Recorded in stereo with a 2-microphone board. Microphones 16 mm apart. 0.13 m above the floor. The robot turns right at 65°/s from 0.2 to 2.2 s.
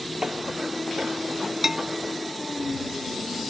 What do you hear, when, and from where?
0.2 s tapping: 55° right (ahead or behind); by 0.3 s 50° right (ahead or behind)
1.6 s a bell: 25° right (ahead or behind); by 2.0 s 10° right (ahead or behind)